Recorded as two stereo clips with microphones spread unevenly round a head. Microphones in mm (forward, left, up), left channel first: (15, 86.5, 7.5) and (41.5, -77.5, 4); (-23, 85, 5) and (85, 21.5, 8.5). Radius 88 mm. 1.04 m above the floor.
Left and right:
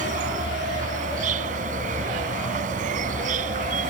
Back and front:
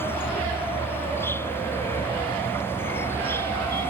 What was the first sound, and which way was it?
An insect, 130° right.